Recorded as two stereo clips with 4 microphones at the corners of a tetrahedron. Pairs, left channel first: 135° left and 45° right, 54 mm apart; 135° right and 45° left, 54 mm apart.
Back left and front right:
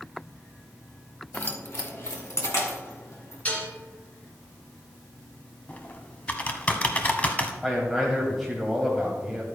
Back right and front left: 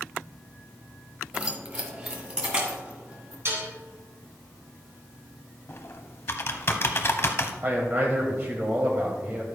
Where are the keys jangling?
105° left, 0.9 m; by 3.4 s 110° left, 2.5 m.